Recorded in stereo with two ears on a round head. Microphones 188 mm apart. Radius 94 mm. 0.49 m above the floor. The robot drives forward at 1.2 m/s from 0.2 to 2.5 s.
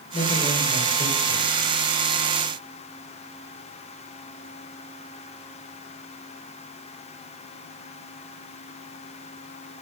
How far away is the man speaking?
About 1.5 m.